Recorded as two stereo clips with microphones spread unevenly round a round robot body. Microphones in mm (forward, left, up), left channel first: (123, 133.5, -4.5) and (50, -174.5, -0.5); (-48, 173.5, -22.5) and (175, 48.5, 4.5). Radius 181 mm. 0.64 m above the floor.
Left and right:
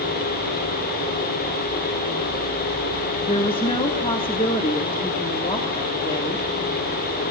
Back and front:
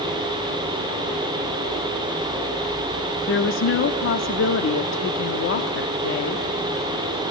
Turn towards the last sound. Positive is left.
turn(degrees=150)